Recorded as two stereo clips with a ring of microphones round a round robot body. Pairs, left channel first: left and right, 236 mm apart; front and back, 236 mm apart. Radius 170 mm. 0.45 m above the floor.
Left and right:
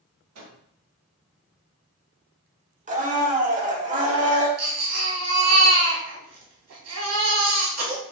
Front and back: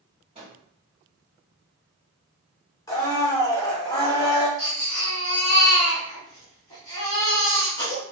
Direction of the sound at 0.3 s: 110° right.